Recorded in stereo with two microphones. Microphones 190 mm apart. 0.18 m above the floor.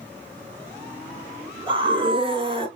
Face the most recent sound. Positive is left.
turn(degrees=-25)  # may be behind; listen again after turning